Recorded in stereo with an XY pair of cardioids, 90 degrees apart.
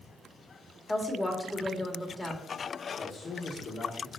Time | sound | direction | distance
0.9 | a woman speaking | 15° left | 2.5 m
3.0 | a man speaking | 50° left | 2.0 m